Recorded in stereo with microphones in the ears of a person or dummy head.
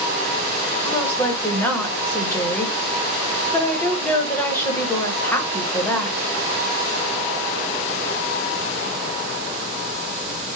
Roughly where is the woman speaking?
Centre.